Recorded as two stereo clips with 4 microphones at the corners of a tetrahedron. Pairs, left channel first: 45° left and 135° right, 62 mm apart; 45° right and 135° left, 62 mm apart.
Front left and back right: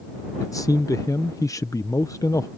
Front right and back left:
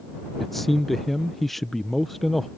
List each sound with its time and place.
0.4 s a man speaking: 40° left